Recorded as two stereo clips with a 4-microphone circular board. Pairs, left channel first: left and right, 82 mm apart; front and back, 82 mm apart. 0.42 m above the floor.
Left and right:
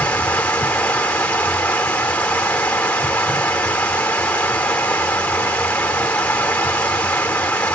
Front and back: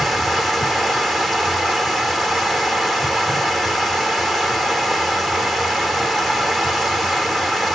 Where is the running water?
90° left, 0.7 m.